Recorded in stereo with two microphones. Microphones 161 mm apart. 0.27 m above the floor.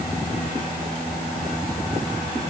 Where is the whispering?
No whispering in this recording.